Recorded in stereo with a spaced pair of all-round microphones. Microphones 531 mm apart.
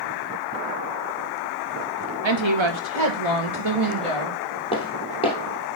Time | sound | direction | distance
2.2 | a woman speaking | 55° right (ahead or behind) | 1.0 m
4.7 | footsteps | 10° left (ahead or behind) | 1.8 m